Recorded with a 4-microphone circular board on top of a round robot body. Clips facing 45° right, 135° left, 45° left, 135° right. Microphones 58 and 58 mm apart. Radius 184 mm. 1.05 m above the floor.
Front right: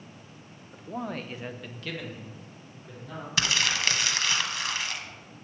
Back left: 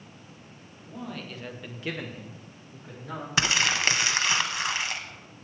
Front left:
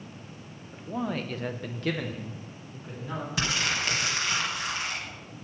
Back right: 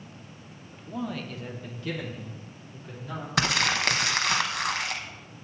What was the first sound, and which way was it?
A man speaking, 25° right.